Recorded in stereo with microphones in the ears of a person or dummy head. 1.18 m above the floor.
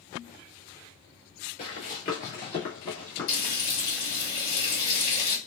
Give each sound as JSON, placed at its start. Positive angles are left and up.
{"t": 1.6, "sound": "running footsteps", "side_deg": 40, "distance_m": 1.5}
{"t": 3.3, "sound": "frying", "side_deg": 50, "distance_m": 1.6}